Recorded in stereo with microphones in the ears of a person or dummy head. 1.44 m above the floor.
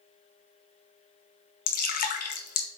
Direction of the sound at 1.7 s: 55° left (ahead or behind).